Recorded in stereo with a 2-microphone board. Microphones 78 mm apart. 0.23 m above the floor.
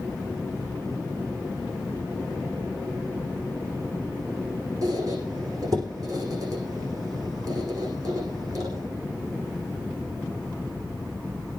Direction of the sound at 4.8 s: 50° right (ahead or behind).